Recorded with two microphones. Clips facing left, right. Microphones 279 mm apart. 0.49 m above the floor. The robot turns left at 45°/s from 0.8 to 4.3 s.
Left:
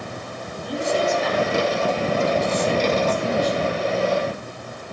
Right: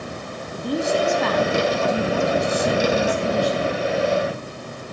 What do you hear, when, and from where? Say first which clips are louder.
0.5 s a woman speaking: right 2 dB; 50° right, 3.5 m; by 3.8 s straight behind, 3.5 m